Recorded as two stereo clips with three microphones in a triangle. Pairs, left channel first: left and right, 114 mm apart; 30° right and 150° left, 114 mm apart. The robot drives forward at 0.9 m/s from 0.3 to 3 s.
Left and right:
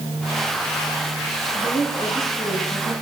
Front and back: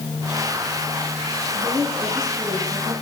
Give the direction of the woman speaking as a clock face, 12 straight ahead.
9 o'clock.